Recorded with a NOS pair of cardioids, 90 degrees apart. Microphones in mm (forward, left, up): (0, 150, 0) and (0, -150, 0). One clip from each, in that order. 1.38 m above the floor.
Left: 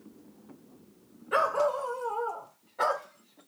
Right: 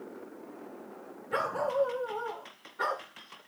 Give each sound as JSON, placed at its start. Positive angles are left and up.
{"t": 1.3, "sound": "a dog barking", "azimuth_deg": 65, "distance_m": 2.5}